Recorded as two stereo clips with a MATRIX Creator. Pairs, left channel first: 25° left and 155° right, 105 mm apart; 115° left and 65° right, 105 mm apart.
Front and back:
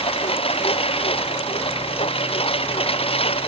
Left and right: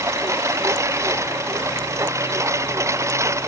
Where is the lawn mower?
5° right.